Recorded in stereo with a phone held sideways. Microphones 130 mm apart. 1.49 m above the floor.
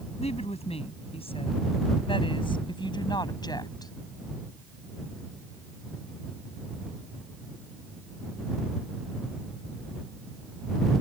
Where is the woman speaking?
55° left (ahead or behind); by 3.9 s 30° left (ahead or behind).